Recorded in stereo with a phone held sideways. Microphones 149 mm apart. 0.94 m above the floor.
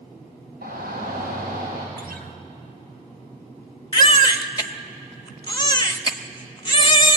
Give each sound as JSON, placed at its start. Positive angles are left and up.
{"t": 0.6, "sound": "a shout", "side_deg": -85, "distance_m": 4.5}
{"t": 2.0, "sound": "a guitar", "side_deg": -75, "distance_m": 1.5}
{"t": 3.9, "sound": "a baby crying", "side_deg": 30, "distance_m": 0.9}